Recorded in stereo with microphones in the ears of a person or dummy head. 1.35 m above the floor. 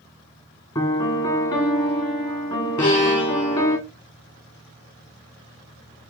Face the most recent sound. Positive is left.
turn(degrees=65)  # may be behind; listen again after turning